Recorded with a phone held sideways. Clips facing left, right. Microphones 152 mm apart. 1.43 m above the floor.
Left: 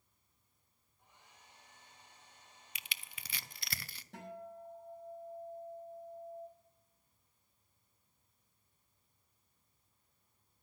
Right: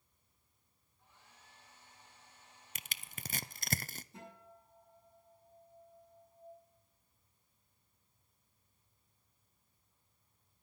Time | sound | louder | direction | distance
1.0 | a hair dryer | even | 15° left (ahead or behind) | 4.5 m
2.8 | crushing | right 2 dB | 45° right (ahead or behind) | 0.5 m
4.1 | a guitar | left 7 dB | 85° left | 7 m